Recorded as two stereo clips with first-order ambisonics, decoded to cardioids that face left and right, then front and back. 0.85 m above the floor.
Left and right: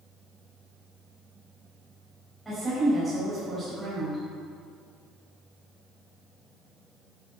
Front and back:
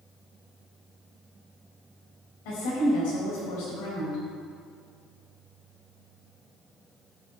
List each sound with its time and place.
2.5 s a woman speaking: straight ahead, 5.5 m